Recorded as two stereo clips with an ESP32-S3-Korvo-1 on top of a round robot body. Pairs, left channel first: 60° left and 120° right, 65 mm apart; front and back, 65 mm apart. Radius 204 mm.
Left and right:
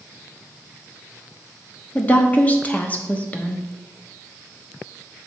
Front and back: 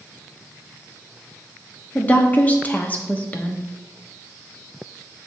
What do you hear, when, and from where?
1.9 s a woman speaking: 30° left, 1.3 m